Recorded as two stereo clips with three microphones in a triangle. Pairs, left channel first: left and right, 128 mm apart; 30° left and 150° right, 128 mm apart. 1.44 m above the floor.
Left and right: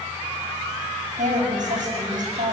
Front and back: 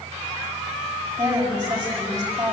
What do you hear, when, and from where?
1.2 s a woman speaking: 95° right, 8 m